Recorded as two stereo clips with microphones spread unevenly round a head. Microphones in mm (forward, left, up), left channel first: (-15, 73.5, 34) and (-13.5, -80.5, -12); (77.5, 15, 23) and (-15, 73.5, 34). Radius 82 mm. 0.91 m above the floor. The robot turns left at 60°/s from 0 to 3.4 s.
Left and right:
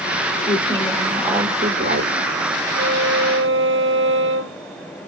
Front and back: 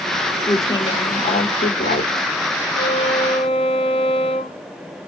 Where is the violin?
50° right, 1.9 m; by 4.6 s 90° right, 1.9 m.